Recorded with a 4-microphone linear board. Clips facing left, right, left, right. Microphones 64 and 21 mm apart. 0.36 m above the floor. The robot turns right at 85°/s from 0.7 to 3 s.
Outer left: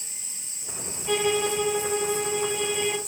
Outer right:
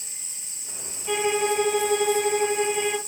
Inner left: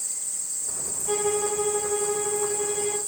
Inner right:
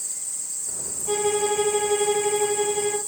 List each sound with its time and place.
1.1 s a violin: 170° right, 1.4 m; by 3.0 s 5° right, 1.4 m